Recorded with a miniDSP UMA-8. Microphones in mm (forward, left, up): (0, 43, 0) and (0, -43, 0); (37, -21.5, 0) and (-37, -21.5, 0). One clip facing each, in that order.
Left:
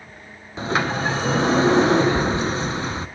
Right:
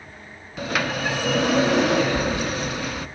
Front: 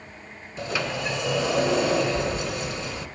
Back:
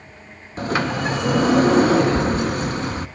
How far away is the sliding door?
About 0.6 m.